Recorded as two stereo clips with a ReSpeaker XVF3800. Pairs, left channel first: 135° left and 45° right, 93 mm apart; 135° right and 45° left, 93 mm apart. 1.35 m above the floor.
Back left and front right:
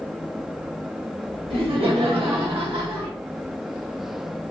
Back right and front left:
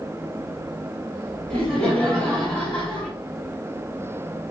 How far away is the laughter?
About 1.6 m.